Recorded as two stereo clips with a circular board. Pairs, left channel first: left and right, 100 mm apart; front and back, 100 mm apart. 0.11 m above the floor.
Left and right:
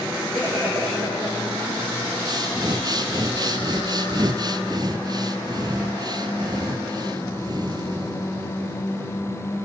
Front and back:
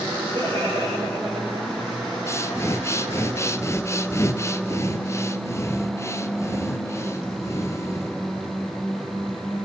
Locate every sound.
0.3 s laughter: 150° right, 8 m
2.3 s breathing: 55° right, 0.8 m